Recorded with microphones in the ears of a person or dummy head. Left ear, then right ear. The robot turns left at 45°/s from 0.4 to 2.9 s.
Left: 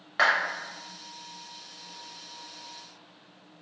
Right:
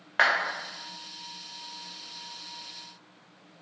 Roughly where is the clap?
Centre.